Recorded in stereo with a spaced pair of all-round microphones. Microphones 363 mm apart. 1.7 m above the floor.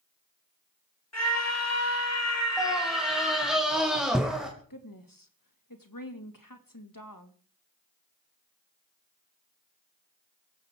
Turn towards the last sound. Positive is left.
turn(degrees=65)  # may be behind; listen again after turning